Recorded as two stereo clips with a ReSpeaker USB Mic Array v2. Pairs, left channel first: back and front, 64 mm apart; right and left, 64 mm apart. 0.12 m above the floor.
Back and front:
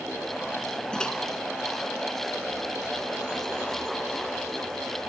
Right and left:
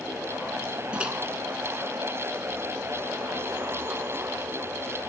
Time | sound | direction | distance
0.9 | a microwave | 130° left | 0.9 m